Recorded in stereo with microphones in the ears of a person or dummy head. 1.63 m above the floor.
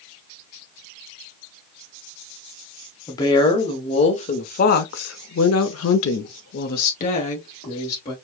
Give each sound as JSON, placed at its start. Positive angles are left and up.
{"t": 3.1, "sound": "a woman speaking", "side_deg": 25, "distance_m": 1.6}